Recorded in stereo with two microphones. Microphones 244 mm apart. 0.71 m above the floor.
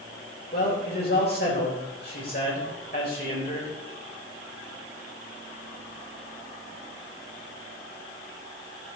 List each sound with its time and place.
0.5 s a man speaking: 40° left (ahead or behind), 4 m